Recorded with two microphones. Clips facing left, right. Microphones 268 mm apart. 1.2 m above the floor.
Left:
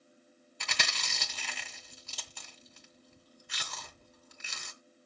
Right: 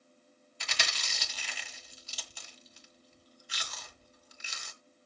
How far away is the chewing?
About 2 m.